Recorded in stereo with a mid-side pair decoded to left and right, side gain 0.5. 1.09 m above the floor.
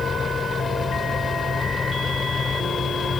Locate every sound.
0.0 s a fan: 35° left